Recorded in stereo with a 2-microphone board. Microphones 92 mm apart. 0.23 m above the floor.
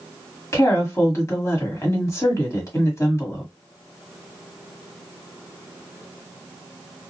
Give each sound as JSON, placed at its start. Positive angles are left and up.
{"t": 0.5, "sound": "a woman speaking", "side_deg": 30, "distance_m": 1.2}